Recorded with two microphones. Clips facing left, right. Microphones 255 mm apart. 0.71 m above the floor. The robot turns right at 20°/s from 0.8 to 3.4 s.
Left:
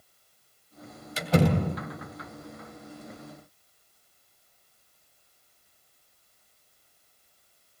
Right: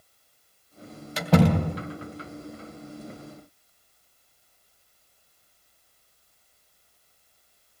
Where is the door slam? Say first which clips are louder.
Right 3 dB; 70° right (ahead or behind), 3 m; by 1.8 s 80° right, 3 m.